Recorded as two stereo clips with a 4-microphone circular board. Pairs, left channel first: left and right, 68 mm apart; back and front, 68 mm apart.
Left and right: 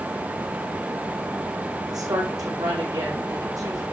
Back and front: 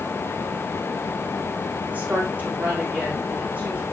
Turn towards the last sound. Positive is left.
turn(degrees=-65)